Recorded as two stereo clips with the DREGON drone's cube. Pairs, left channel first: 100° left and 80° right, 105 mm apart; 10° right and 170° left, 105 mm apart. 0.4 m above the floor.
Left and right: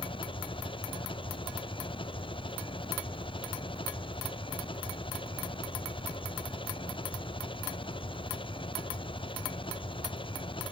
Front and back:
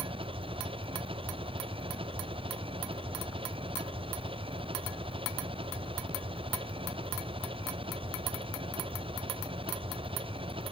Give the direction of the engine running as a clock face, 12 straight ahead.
7 o'clock.